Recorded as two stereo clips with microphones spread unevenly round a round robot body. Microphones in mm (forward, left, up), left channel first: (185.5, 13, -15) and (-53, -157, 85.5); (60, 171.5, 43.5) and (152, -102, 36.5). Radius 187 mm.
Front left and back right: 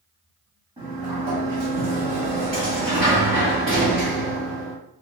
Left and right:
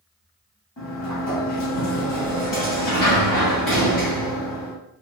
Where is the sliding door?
150° left, 0.8 m.